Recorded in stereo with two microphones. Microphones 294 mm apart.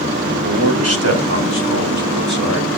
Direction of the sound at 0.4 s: 40° right (ahead or behind).